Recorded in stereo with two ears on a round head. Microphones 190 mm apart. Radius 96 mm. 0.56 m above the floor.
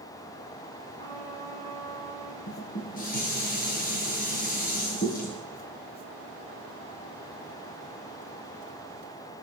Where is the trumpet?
20° left (ahead or behind), 8.5 m.